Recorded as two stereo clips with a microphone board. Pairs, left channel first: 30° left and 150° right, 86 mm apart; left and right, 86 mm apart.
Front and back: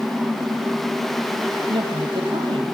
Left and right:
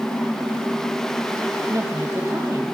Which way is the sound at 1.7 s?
150° right.